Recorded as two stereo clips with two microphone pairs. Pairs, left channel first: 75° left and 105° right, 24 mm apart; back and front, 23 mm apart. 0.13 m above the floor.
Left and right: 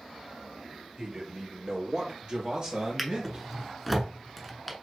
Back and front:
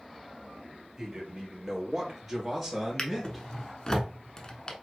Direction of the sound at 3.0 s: 170° left.